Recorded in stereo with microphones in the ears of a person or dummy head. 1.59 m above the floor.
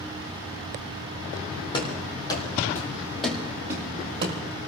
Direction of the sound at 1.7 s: 35° left (ahead or behind).